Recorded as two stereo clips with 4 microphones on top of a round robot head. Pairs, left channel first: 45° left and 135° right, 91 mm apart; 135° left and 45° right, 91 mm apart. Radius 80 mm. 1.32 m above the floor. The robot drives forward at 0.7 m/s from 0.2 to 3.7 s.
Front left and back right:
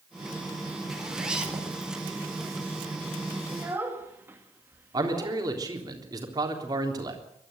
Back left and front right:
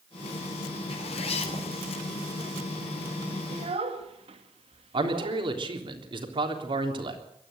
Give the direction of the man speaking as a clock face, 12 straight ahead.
3 o'clock.